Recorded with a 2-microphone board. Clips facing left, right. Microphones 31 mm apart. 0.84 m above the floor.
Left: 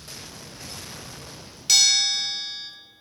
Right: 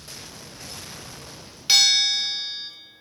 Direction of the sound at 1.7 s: 25° right (ahead or behind).